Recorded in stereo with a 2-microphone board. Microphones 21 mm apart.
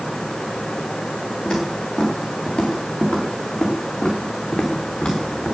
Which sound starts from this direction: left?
Footsteps, at 1.4 s.